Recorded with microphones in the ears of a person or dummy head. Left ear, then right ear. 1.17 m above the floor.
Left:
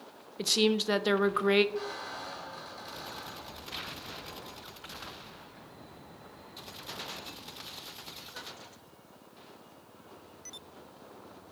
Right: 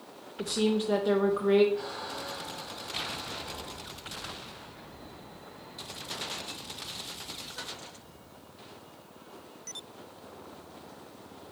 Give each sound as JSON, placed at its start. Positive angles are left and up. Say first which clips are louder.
{"t": 0.4, "sound": "a woman speaking", "louder": "left 2 dB", "side_deg": 45, "distance_m": 0.5}
{"t": 1.8, "sound": "a squeak", "louder": "right 1 dB", "side_deg": 75, "distance_m": 3.5}